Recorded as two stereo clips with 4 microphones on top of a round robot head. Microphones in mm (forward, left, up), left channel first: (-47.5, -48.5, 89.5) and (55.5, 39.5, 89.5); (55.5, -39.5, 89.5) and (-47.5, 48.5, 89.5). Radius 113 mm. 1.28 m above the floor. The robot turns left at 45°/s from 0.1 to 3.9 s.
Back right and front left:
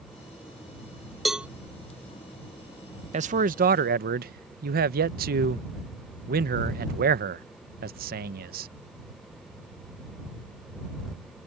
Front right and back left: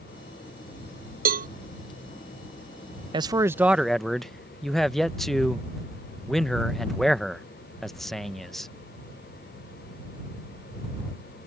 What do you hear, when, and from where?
1.2 s a cowbell: 130° left; by 1.5 s 120° left
3.1 s a man speaking: 80° left; by 8.7 s 50° left